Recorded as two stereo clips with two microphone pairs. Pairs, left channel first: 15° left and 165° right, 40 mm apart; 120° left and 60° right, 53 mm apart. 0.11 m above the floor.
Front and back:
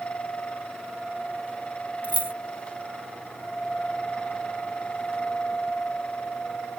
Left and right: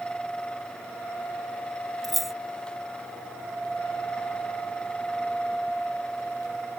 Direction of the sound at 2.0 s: 155° right.